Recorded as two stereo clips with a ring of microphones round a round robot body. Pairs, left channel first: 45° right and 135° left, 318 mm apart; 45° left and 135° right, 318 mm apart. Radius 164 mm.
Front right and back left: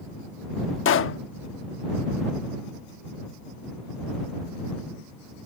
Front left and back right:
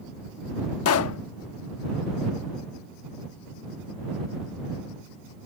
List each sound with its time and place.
0.8 s a pop: 5° left